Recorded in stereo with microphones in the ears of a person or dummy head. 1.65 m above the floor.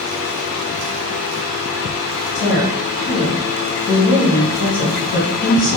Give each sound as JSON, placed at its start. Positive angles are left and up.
{"t": 2.4, "sound": "a woman speaking", "side_deg": 70, "distance_m": 1.6}